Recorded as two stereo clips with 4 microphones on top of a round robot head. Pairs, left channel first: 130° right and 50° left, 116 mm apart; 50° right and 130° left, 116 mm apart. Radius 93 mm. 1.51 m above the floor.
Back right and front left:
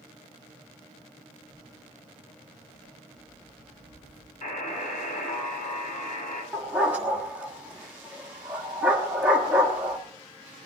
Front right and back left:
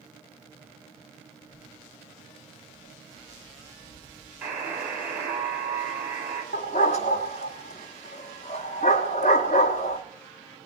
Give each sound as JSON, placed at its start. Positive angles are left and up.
{"t": 1.4, "sound": "footsteps", "azimuth_deg": -95, "distance_m": 8.5}
{"t": 4.4, "sound": "a buzzer", "azimuth_deg": -150, "distance_m": 7.5}
{"t": 6.5, "sound": "a dog barking", "azimuth_deg": -25, "distance_m": 1.2}